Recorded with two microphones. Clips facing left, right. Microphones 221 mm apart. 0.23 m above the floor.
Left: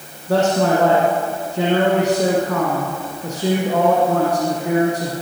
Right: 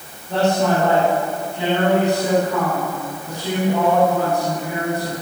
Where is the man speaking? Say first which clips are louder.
Left 2 dB; 80° left, 8.5 m.